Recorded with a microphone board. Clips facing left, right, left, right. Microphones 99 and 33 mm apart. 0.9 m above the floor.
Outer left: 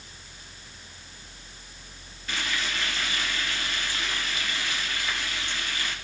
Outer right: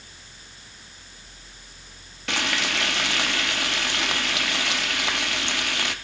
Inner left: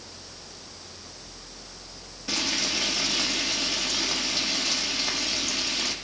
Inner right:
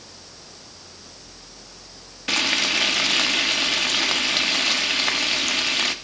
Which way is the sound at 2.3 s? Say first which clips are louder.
Outer right 5 dB, inner right 7 dB; 70° right (ahead or behind).